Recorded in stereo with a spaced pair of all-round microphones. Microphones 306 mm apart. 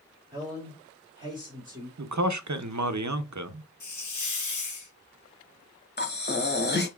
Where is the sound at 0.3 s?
15° right (ahead or behind), 2.5 m.